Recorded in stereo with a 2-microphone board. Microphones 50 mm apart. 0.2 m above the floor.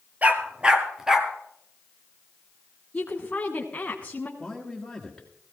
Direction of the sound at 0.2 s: 30° right (ahead or behind).